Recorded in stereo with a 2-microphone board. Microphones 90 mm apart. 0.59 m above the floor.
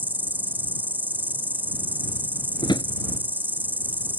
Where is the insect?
20° right (ahead or behind).